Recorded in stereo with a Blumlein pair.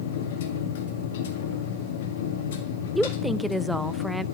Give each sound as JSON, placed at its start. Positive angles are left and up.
{"t": 0.0, "sound": "a machine running", "azimuth_deg": 55, "distance_m": 1.9}
{"t": 3.0, "sound": "a woman speaking", "azimuth_deg": 0, "distance_m": 0.6}